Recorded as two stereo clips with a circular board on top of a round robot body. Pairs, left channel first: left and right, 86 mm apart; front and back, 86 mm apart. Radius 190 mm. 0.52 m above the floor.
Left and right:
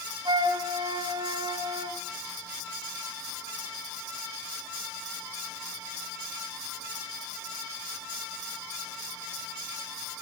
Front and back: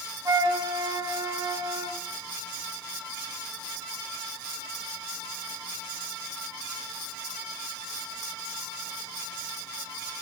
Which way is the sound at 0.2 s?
125° right.